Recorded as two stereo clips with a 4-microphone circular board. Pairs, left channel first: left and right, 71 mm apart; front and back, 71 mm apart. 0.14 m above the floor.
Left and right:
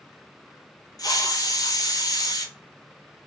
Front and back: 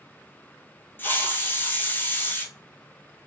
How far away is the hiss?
About 1.0 m.